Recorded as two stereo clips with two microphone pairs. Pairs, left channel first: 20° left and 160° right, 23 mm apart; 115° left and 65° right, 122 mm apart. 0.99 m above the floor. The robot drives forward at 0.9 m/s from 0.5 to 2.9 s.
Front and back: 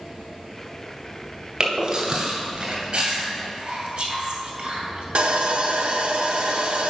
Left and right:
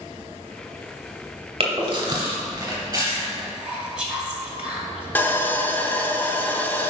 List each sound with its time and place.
1.6 s chewing: 105° right, 2 m; by 3.4 s 130° right, 3 m
3.5 s whispering: 145° right, 2 m
5.2 s sawing: 170° right, 0.7 m